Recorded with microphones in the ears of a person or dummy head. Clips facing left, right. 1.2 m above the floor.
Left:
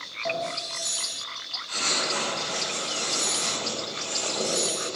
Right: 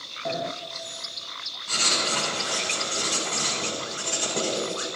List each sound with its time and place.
0.2 s a sliding door: 25° right (ahead or behind), 0.5 m
1.7 s writing: 55° right (ahead or behind), 7 m